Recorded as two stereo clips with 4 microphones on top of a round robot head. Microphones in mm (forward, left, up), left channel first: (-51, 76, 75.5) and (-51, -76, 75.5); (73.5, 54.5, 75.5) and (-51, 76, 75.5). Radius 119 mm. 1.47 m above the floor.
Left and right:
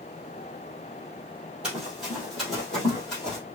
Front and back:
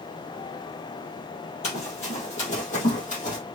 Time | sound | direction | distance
1.6 | running footsteps | 5° right | 2.0 m